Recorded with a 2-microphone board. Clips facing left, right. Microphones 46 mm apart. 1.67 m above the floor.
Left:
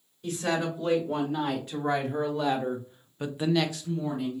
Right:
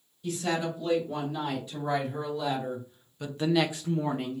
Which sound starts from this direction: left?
A woman speaking, at 0.2 s.